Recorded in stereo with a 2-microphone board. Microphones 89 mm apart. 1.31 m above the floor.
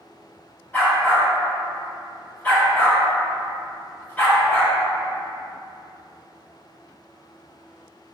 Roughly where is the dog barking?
Left.